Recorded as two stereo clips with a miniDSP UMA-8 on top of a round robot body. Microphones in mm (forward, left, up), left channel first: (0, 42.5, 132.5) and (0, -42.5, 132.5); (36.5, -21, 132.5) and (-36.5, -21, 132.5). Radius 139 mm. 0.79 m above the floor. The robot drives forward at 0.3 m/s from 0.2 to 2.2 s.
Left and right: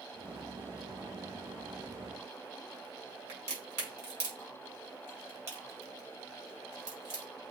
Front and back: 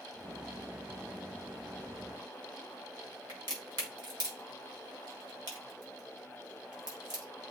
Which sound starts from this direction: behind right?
A crack, at 3.3 s.